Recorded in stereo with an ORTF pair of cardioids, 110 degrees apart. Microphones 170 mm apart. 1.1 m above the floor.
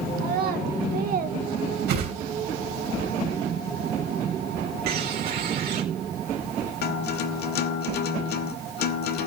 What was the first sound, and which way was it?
A child speaking, 60° right.